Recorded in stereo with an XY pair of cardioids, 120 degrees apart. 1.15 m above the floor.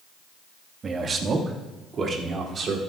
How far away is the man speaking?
About 1.4 m.